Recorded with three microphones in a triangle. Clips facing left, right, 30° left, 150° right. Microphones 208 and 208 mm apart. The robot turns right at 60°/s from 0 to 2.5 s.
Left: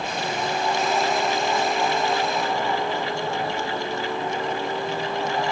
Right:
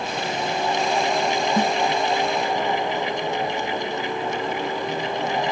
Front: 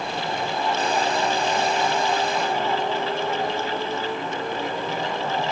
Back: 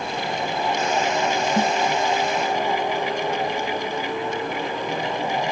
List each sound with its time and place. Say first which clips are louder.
1.6 s a snare drum: right 3 dB, back 3 dB; 115° right; by 1.7 s 105° right